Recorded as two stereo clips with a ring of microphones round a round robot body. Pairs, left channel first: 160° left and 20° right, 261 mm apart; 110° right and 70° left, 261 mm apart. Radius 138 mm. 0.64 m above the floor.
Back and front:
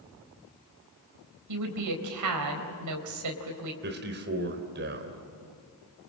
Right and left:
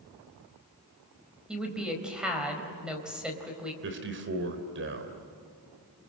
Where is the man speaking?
25° left, 3.5 m.